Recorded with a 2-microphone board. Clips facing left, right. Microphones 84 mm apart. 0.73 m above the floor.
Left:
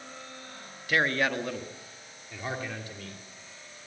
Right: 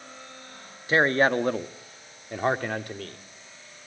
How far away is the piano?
I don't hear a piano.